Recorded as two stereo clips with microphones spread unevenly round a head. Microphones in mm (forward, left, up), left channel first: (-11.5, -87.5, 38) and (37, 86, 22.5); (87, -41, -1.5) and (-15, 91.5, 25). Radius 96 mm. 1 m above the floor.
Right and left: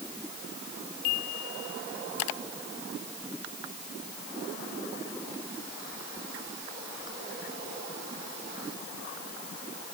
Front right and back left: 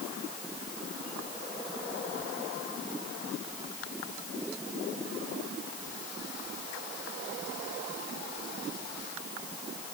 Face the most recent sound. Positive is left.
No sound to turn to.